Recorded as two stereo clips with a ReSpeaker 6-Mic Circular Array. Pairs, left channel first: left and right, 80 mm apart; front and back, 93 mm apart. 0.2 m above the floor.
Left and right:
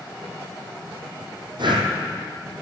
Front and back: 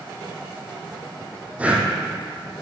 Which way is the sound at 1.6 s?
105° right.